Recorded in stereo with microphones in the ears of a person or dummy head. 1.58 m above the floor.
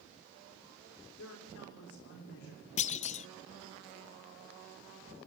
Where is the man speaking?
65° left (ahead or behind), 4.5 m.